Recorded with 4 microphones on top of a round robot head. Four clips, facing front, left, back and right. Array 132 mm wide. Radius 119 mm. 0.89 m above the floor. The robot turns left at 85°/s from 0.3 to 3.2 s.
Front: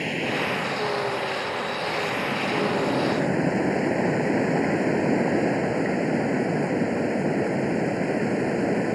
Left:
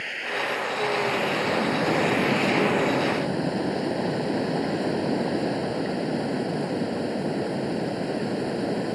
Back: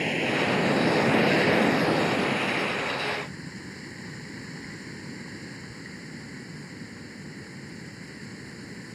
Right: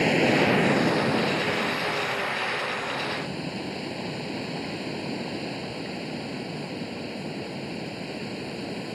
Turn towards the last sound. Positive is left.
turn(degrees=25)